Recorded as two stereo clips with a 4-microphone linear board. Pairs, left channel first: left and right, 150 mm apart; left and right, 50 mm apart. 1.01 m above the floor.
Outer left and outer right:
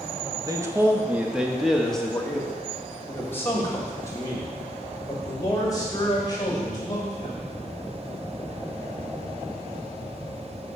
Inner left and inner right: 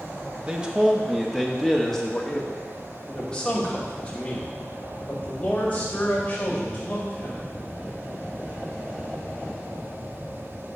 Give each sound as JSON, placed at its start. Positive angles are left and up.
{"t": 0.5, "sound": "a man speaking", "side_deg": -25, "distance_m": 1.1}